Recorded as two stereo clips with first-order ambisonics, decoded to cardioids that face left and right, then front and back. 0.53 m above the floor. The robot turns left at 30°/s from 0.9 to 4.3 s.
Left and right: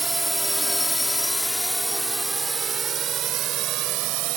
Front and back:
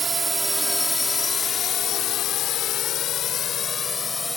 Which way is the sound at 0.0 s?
150° right.